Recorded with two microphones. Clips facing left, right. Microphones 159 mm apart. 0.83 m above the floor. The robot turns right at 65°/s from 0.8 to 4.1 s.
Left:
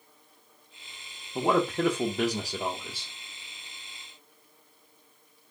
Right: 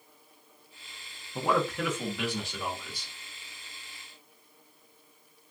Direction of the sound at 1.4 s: 30° left.